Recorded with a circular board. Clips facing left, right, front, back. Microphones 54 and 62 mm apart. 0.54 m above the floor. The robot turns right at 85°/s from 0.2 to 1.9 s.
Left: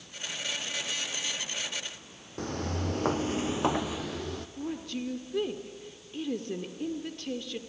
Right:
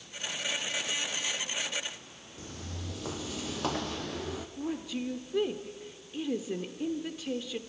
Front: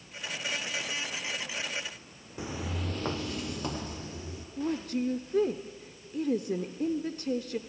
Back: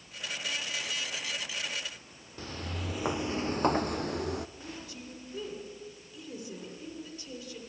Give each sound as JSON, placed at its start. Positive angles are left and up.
{"t": 2.4, "sound": "footsteps", "azimuth_deg": 75, "distance_m": 1.2}
{"t": 4.6, "sound": "a woman speaking", "azimuth_deg": -10, "distance_m": 1.1}